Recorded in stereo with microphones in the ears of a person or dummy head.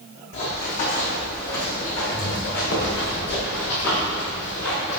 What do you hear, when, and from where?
0.3 s running footsteps: 50° left (ahead or behind), 4.5 m; by 5.0 s 80° left, 9 m